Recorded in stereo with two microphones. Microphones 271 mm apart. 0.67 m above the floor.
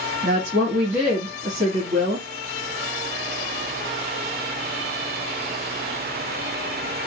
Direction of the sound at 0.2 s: 40° right (ahead or behind).